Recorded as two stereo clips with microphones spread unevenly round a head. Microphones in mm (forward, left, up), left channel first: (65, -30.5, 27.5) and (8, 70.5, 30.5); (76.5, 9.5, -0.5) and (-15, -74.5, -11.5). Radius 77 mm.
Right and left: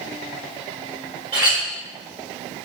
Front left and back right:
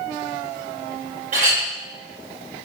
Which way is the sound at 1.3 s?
Straight behind.